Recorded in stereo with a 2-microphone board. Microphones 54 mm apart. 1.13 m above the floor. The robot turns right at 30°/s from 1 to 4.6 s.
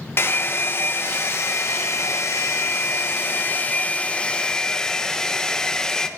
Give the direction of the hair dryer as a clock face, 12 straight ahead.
10 o'clock.